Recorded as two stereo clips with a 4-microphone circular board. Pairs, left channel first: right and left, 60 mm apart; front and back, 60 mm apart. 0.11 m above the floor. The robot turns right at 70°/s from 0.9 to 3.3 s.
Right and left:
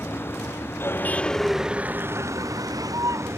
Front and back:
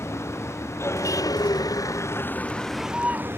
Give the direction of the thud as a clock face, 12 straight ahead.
No thud in this recording.